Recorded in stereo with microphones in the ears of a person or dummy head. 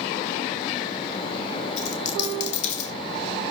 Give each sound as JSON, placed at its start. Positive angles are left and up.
{"t": 1.8, "sound": "a dropped coin", "side_deg": 40, "distance_m": 6.0}